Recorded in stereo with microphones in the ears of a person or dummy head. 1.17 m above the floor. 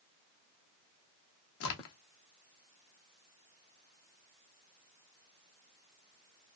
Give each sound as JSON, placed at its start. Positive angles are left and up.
{"t": 1.6, "sound": "a crack", "side_deg": 75, "distance_m": 0.7}